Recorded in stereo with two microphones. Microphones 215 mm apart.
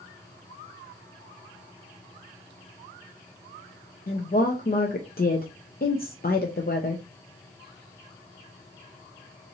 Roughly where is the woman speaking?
Left.